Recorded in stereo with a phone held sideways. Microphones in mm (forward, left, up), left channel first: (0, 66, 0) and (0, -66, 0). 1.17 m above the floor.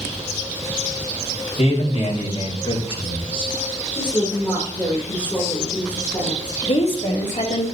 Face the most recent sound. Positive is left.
turn(degrees=55)  # may be behind; listen again after turning